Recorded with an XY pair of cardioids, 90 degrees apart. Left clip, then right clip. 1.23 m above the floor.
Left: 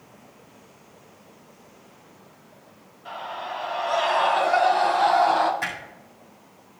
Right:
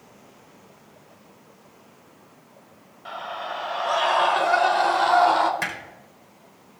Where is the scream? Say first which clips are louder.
Right 1 dB; 50° right, 4 m.